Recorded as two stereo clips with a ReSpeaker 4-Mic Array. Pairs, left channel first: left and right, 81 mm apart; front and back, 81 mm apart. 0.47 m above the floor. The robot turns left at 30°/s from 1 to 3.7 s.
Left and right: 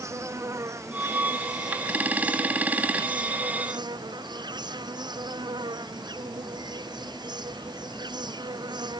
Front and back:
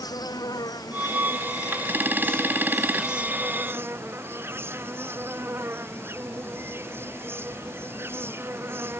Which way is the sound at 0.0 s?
40° right.